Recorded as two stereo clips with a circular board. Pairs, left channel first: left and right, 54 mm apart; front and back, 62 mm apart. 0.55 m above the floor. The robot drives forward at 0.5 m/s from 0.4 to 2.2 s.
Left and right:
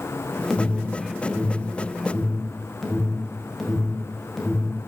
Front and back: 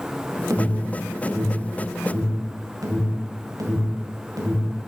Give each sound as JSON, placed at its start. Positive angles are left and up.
{"t": 0.5, "sound": "an alarm", "azimuth_deg": 175, "distance_m": 0.8}